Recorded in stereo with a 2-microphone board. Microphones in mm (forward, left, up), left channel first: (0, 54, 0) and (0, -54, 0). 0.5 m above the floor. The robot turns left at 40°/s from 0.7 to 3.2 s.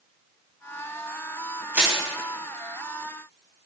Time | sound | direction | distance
1.7 | crushing | 20° right (ahead or behind) | 4 m